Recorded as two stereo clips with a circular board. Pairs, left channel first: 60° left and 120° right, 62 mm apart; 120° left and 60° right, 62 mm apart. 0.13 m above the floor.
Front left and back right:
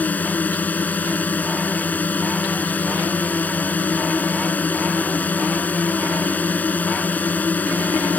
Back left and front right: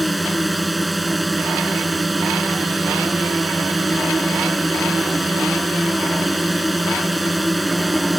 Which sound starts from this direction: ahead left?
A drone, at 0.0 s.